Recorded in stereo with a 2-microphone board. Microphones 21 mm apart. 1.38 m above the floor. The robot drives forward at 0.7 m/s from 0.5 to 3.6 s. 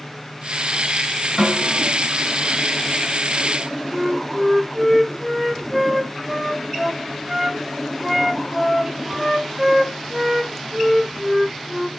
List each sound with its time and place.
1.4 s a snare drum: 25° right (ahead or behind), 2 m
3.9 s a flute: 10° right (ahead or behind), 0.8 m